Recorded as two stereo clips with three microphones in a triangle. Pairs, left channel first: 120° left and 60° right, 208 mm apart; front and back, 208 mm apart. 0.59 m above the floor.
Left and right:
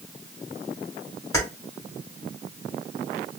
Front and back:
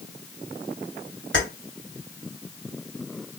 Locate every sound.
1.3 s keys jangling: 165° right, 1.6 m